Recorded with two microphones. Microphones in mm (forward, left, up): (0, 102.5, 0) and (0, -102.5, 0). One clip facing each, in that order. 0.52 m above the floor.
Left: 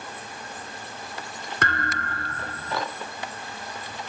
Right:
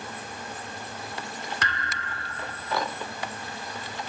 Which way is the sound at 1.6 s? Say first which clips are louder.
Left 6 dB; 55° left (ahead or behind).